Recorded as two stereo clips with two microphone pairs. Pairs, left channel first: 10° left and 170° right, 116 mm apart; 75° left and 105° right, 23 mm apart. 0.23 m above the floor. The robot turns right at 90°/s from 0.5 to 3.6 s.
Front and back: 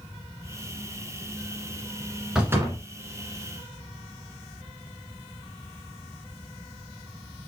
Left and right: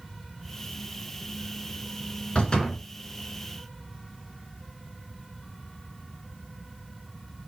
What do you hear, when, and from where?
2.4 s a door slam: 110° left, 1.5 m; by 2.8 s 150° left, 1.5 m